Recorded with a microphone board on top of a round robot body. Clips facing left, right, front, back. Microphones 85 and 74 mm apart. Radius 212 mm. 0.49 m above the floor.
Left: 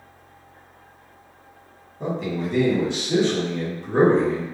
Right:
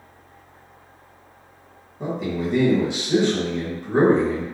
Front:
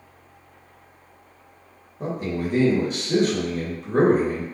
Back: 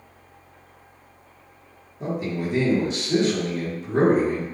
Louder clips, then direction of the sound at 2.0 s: Right 1 dB, even; 20° right.